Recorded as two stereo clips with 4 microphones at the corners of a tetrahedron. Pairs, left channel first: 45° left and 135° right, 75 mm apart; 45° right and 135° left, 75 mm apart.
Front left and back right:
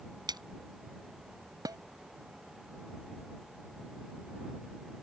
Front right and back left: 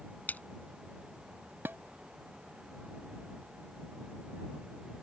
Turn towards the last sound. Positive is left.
turn(degrees=-165)